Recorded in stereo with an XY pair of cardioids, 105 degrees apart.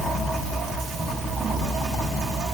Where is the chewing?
I don't hear chewing.